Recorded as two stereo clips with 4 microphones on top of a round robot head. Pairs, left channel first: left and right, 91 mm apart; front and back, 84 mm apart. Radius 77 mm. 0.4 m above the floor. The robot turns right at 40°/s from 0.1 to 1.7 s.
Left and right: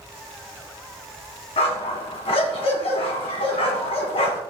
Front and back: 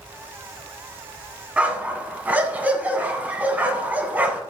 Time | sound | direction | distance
1.6 | a dog barking | 105° left | 1.8 m